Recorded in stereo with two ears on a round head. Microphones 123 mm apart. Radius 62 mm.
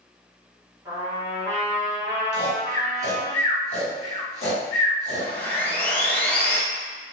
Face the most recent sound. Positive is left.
turn(degrees=10)  # may be behind; listen again after turning